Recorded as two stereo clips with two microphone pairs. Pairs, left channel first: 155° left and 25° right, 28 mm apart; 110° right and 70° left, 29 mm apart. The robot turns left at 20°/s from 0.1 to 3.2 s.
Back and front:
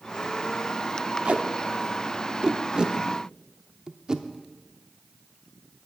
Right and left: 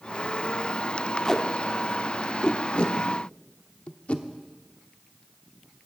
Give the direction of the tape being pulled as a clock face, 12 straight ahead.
1 o'clock.